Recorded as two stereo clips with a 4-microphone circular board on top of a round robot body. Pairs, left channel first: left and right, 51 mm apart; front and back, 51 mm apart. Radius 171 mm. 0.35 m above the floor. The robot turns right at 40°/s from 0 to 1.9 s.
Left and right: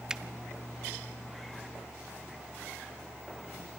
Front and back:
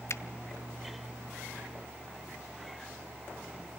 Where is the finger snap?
15° right, 1.2 m; by 0.2 s 10° right, 1.2 m.